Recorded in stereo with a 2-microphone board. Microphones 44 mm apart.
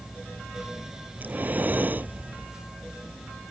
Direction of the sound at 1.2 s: 40° right (ahead or behind).